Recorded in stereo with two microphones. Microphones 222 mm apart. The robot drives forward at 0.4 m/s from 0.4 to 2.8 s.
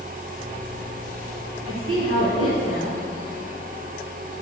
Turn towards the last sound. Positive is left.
turn(degrees=-70)  # may be behind; listen again after turning